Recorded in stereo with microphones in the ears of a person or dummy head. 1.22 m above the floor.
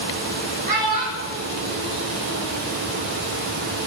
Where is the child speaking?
25° right (ahead or behind), 1.5 m; by 2.6 s 50° right (ahead or behind), 3 m.